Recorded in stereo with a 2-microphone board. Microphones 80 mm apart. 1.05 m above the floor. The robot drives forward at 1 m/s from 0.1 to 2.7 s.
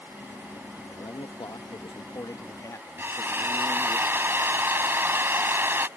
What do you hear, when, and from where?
0.9 s a man speaking: 55° left (ahead or behind); by 4.0 s 40° left (ahead or behind)
3.0 s a drill: 30° right (ahead or behind)